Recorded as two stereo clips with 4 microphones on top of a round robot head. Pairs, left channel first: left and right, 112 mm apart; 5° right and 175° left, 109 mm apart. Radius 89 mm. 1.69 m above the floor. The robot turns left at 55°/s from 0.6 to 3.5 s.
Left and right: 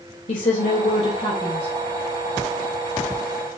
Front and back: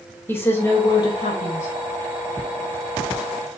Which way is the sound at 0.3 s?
65° left.